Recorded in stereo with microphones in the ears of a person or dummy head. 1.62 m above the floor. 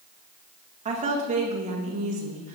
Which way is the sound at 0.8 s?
25° right (ahead or behind).